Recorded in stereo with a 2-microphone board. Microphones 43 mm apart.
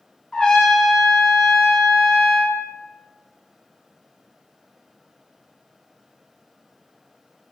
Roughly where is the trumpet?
Centre.